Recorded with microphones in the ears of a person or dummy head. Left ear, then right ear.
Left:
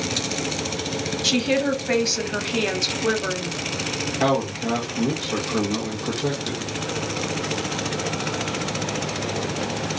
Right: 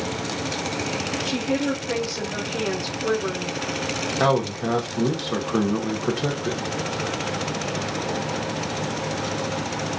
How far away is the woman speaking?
About 0.8 m.